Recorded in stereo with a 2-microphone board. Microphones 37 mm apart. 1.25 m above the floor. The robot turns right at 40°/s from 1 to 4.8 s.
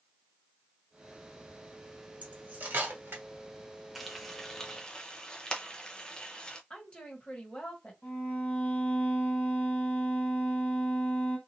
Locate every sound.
2.2 s cutlery clinking: 45° right (ahead or behind), 1.4 m; by 3.2 s 75° right (ahead or behind), 1.4 m
4.0 s frying: centre (ahead or behind), 0.7 m; by 6.6 s 25° left (ahead or behind), 0.7 m
6.7 s a woman speaking: 30° left (ahead or behind), 1.4 m
8.0 s a violin: 45° left (ahead or behind), 1.8 m